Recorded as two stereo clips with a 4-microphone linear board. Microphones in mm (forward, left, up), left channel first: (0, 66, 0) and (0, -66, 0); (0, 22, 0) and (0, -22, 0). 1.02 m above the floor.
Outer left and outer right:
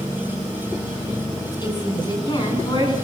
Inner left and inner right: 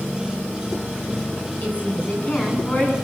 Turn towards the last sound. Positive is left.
turn(degrees=35)  # may be behind; listen again after turning